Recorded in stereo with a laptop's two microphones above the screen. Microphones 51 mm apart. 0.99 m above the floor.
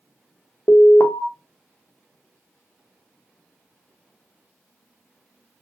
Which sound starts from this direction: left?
An alarm, at 0.7 s.